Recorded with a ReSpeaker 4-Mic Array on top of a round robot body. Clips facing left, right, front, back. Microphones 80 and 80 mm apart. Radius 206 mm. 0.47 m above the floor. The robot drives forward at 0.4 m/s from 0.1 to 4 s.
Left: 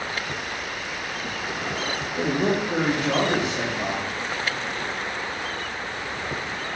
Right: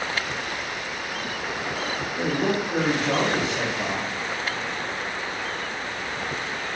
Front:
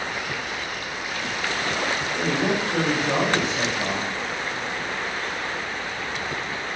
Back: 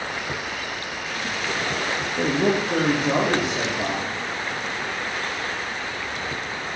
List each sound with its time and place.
2.2 s a man speaking: 150° left, 1.0 m; by 4.1 s 165° left, 1.5 m